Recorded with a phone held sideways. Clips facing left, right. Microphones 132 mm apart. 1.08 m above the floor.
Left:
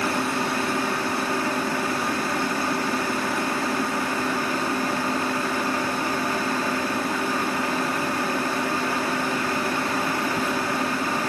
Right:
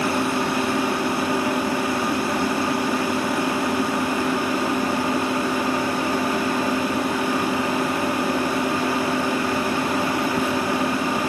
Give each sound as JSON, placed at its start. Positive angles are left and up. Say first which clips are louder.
{"t": 0.0, "sound": "a fan", "louder": "right 3 dB", "side_deg": -15}